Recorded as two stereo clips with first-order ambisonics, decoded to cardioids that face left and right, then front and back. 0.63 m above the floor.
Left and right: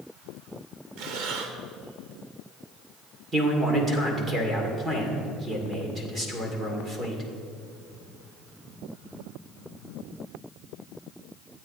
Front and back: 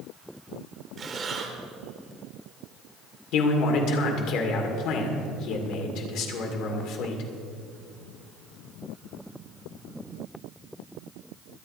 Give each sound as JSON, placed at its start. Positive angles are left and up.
{"t": 1.0, "sound": "breathing", "azimuth_deg": -115, "distance_m": 1.4}
{"t": 3.3, "sound": "a man speaking", "azimuth_deg": -20, "distance_m": 2.0}